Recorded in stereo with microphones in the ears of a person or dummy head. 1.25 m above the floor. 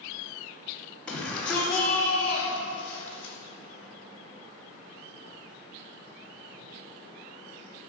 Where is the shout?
5° left (ahead or behind), 3.5 m; by 3.3 s 10° left (ahead or behind), 5.5 m.